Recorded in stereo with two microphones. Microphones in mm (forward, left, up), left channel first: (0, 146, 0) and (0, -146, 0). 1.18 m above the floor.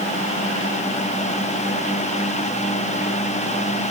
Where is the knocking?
No knocking in this recording.